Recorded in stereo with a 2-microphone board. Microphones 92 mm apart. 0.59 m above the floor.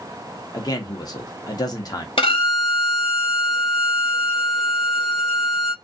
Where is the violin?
75° left (ahead or behind), 0.7 m.